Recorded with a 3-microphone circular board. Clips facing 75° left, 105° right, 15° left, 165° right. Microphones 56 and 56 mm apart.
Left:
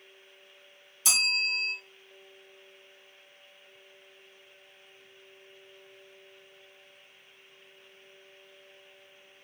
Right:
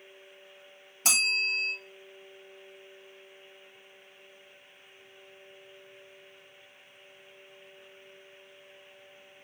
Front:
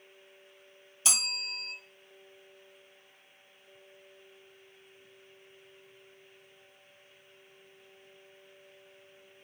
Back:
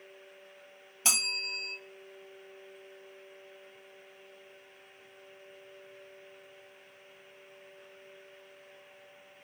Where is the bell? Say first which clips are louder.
Right 1 dB, back 2 dB; 120° right, 1.1 m.